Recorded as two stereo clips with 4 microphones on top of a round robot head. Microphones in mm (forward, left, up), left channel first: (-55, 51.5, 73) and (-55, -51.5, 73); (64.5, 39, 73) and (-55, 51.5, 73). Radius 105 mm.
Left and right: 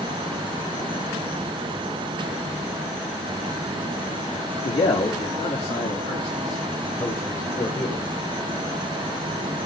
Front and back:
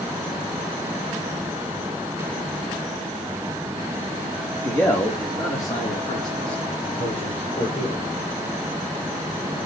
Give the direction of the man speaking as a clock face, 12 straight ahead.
10 o'clock.